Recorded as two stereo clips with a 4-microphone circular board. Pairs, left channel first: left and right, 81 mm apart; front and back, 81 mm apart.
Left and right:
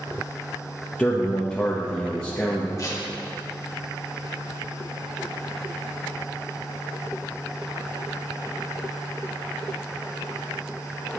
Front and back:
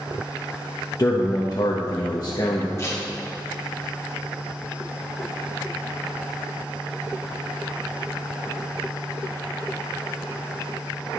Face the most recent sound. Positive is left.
turn(degrees=50)